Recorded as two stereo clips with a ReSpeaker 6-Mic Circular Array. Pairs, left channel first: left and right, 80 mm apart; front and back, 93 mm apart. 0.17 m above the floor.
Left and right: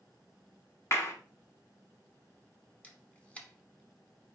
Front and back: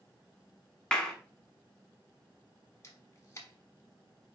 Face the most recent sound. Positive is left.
turn(degrees=25)